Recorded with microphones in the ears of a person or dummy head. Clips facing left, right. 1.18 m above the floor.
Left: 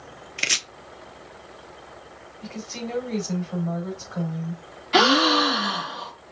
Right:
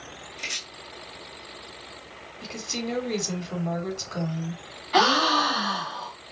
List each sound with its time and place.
0.4 s chopping: 85° left, 0.7 m
2.4 s a woman speaking: 70° right (ahead or behind), 3 m
4.9 s a gasp: 40° left (ahead or behind), 1.3 m